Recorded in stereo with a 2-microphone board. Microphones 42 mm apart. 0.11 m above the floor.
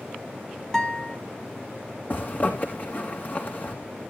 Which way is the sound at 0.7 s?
10° left (ahead or behind).